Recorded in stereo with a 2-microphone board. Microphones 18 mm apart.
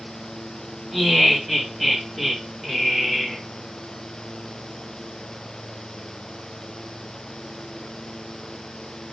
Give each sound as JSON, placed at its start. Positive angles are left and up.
{"t": 0.9, "sound": "laughter", "side_deg": 5, "distance_m": 1.7}